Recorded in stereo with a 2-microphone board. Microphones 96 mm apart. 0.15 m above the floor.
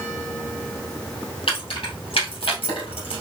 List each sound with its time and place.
1.5 s keys jangling: 65° left (ahead or behind), 3 m; by 3.2 s 70° left (ahead or behind), 2.5 m